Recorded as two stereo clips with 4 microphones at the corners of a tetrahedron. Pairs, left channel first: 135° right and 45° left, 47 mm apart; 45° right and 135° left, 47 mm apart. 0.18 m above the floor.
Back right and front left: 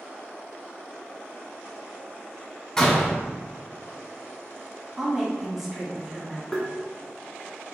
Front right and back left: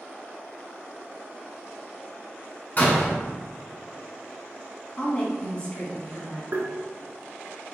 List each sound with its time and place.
2.8 s a door slam: 65° right, 1.2 m
5.0 s a woman speaking: 30° right, 1.3 m
6.5 s tapping: 145° left, 0.8 m